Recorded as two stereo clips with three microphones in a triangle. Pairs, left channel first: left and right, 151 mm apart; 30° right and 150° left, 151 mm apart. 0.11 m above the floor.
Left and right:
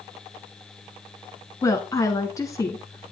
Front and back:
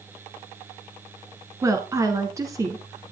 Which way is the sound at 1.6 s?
120° left.